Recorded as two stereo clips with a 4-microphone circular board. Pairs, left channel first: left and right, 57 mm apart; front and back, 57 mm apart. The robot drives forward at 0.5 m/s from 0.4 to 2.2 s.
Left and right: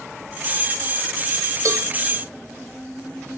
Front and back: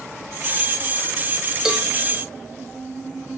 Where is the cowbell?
100° right, 0.9 m; by 1.9 s 105° right, 0.9 m.